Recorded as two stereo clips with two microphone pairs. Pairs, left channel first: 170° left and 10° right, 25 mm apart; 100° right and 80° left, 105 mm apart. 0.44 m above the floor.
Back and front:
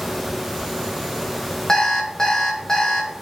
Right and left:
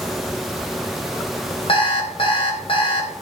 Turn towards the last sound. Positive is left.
turn(degrees=-125)